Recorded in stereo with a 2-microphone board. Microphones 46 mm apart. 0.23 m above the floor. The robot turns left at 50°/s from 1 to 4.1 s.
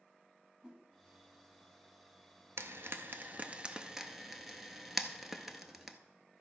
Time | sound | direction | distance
0.6 | a whoosh | 15° right (ahead or behind) | 1.5 m
2.6 | frying | 80° right | 0.7 m